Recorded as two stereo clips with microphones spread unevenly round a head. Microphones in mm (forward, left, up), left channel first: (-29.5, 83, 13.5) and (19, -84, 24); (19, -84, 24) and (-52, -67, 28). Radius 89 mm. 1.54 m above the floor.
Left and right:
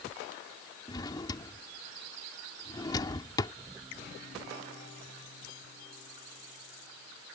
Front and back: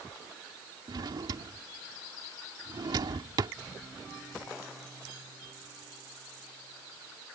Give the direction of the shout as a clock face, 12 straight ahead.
I don't hear a shout.